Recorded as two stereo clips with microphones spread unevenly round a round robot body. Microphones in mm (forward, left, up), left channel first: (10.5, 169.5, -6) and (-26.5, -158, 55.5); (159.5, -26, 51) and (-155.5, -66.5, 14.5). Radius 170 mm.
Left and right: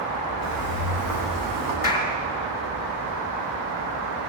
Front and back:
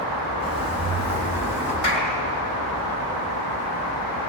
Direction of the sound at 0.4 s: 65° right.